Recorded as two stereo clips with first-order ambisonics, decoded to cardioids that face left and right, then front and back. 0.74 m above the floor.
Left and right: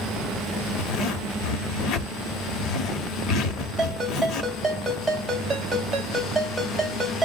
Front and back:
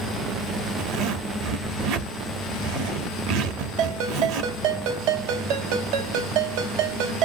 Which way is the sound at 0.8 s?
145° left.